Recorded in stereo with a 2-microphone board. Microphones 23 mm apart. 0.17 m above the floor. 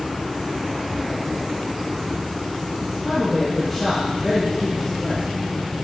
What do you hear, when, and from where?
2.8 s a man speaking: 15° left (ahead or behind), 3 m